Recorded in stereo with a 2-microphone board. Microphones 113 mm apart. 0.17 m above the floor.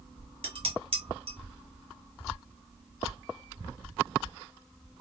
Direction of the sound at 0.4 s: 55° right (ahead or behind).